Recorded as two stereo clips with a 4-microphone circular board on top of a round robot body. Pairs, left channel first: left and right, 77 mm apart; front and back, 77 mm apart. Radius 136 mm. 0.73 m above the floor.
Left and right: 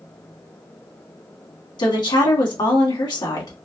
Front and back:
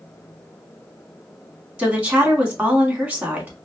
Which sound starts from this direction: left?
A woman speaking, at 1.8 s.